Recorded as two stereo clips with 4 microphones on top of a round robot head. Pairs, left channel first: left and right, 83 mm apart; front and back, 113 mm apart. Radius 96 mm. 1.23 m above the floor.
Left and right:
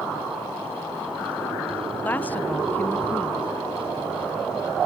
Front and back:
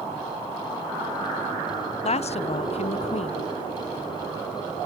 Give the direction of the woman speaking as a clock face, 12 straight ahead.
11 o'clock.